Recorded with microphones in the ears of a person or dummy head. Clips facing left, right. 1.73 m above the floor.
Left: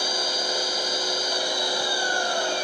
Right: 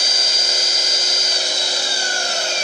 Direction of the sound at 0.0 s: 40° right (ahead or behind).